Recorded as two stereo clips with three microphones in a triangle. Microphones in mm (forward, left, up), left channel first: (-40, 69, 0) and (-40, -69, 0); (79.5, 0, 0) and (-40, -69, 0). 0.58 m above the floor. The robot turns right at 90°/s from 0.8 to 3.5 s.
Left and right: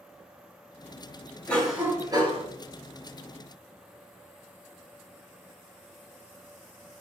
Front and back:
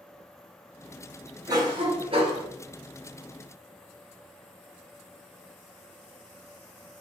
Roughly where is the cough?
Behind.